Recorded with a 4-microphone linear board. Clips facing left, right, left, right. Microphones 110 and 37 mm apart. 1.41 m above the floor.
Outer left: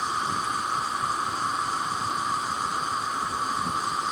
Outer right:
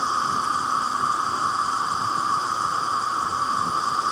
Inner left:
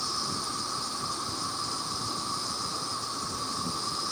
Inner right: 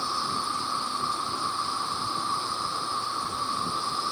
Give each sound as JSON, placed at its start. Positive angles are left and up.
{"t": 0.0, "sound": "an insect", "side_deg": -30, "distance_m": 0.8}